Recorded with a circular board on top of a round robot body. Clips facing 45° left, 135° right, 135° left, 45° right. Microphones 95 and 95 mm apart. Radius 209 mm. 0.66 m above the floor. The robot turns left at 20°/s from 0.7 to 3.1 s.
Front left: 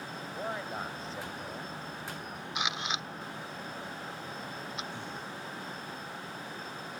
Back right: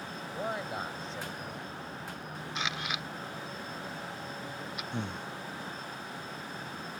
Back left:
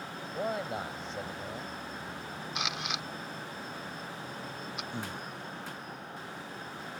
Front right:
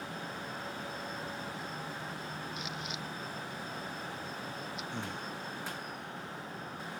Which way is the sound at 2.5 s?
120° left.